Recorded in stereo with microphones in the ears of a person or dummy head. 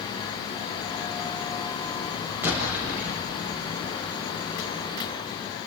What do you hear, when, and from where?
2.4 s an explosion: 10° right (ahead or behind), 8 m